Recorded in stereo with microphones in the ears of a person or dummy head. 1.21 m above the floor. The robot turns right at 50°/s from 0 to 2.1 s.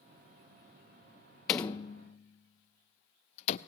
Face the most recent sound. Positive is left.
turn(degrees=50)  # may be behind; listen again after turning